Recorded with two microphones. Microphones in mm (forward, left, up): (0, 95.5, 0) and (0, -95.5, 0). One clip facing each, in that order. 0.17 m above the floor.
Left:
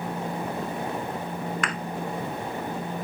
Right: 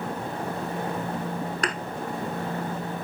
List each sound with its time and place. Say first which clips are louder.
1.6 s a thud: right 2 dB; 35° right (ahead or behind), 0.8 m